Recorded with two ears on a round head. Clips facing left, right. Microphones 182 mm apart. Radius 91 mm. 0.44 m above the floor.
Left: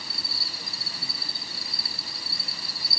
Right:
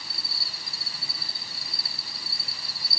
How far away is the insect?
About 3 m.